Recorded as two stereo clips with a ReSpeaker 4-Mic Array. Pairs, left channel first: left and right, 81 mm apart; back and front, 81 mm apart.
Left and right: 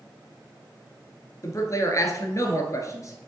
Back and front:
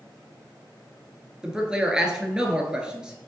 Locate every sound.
1.4 s a man speaking: 75° left, 1.5 m